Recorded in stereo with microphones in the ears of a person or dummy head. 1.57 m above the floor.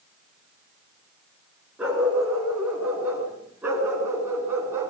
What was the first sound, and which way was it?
A dog barking, 5° right (ahead or behind).